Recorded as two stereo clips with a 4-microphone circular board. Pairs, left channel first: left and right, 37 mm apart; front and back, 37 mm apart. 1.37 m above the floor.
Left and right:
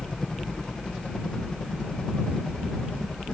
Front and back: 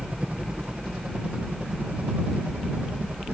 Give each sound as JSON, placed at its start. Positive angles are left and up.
{"t": 0.0, "sound": "a helicopter", "azimuth_deg": 155}